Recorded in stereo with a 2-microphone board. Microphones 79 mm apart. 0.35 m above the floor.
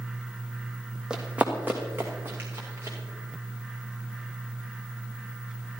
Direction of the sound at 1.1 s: 10° right (ahead or behind).